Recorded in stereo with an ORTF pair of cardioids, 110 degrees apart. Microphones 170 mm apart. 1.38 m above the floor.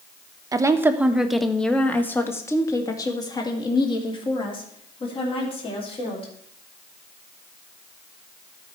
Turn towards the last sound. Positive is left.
turn(degrees=35)